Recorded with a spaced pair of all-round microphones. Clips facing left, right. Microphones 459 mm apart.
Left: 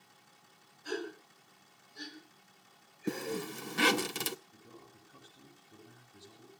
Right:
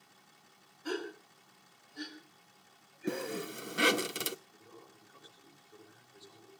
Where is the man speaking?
50° left (ahead or behind), 6.5 m.